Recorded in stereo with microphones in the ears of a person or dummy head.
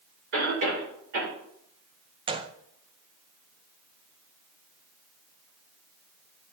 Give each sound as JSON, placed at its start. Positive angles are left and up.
{"t": 0.3, "sound": "a cough", "side_deg": -70, "distance_m": 5.0}
{"t": 2.3, "sound": "a gunshot", "side_deg": -25, "distance_m": 0.5}